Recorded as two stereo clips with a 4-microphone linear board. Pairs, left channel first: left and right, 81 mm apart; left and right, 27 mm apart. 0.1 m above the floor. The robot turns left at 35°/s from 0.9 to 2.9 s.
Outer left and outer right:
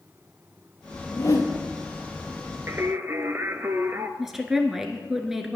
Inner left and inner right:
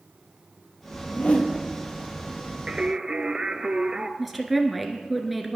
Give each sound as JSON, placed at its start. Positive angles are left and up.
{"t": 1.1, "sound": "a whoosh", "side_deg": 40, "distance_m": 1.5}
{"t": 2.7, "sound": "singing", "side_deg": -35, "distance_m": 0.6}
{"t": 4.2, "sound": "a woman speaking", "side_deg": -5, "distance_m": 1.2}